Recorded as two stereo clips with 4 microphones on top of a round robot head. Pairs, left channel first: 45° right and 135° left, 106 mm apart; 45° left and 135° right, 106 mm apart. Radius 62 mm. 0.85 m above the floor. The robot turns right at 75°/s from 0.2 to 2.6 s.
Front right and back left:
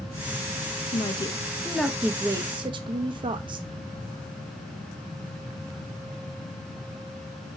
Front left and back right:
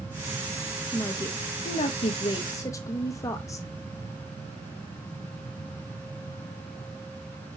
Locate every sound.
0.9 s a woman speaking: 25° right, 0.8 m; by 3.7 s 100° left, 0.8 m